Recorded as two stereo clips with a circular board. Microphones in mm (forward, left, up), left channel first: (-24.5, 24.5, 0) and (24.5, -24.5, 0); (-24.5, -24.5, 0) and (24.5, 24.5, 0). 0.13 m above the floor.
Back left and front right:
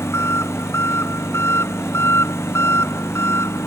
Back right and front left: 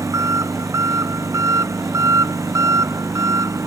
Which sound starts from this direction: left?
An engine running, at 0.0 s.